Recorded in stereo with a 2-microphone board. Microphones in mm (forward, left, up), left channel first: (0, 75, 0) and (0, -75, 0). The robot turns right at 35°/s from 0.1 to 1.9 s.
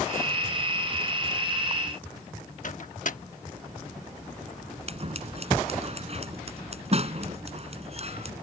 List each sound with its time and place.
2.6 s a microwave: 60° left (ahead or behind)
4.9 s scissors: 45° right (ahead or behind)